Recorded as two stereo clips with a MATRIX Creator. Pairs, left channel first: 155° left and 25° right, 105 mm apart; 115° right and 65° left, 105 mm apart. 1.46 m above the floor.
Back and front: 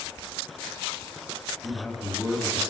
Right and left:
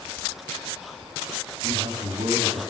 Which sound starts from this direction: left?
A man speaking, at 1.6 s.